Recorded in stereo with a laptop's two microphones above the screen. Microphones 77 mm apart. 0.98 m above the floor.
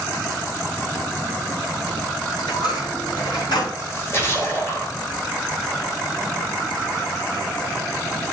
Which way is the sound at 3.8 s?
35° left (ahead or behind).